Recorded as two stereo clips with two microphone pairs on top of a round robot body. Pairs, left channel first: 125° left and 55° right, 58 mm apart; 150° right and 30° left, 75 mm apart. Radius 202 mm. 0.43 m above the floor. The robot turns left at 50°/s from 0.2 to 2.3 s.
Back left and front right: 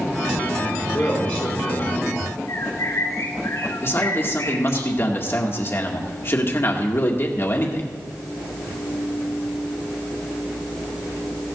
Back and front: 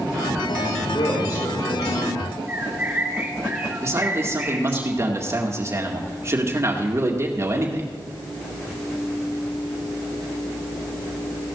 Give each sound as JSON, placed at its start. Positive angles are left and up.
{"t": 0.9, "sound": "a man speaking", "azimuth_deg": -140, "distance_m": 7.0}
{"t": 2.5, "sound": "a bird", "azimuth_deg": 105, "distance_m": 4.5}
{"t": 3.8, "sound": "a man speaking", "azimuth_deg": 85, "distance_m": 2.0}